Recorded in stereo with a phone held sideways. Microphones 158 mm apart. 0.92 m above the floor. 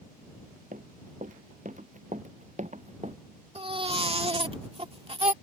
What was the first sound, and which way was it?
Running footsteps, 55° right (ahead or behind).